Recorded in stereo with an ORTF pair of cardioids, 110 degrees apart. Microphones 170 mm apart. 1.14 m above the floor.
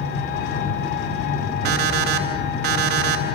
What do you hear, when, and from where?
0.0 s an engine running: 70° left, 2.5 m
1.6 s an alarm clock: 70° right, 4.5 m